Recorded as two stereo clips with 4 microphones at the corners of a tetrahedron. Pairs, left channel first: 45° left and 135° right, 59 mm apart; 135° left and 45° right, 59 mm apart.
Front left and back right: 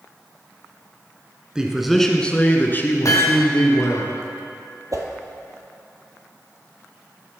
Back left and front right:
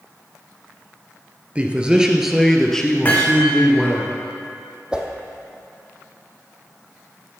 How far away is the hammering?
About 2.5 m.